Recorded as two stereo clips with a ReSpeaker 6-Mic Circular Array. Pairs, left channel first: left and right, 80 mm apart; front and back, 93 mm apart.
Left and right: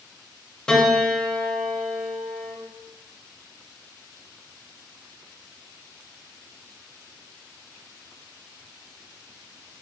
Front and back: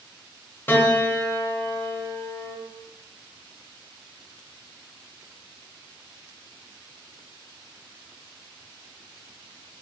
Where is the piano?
20° left, 0.6 m.